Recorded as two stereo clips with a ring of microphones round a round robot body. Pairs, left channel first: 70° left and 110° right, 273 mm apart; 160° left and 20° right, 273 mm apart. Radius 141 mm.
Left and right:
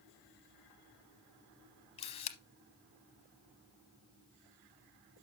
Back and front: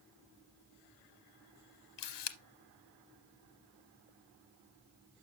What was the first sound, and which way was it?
A camera shutter, 135° left.